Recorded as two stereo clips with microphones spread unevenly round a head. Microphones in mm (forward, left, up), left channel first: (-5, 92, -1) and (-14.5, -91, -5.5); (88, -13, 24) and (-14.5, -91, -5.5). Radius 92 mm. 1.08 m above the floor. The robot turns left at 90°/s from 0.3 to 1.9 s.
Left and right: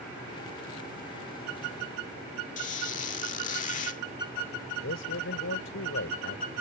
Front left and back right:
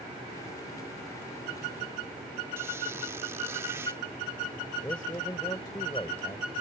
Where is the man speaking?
110° left.